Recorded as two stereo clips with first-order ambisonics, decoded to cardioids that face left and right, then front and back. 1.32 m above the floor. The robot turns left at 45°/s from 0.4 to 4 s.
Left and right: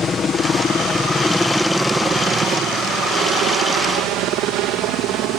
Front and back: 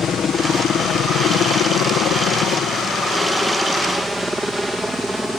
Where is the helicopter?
40° left; by 5.4 s 90° right.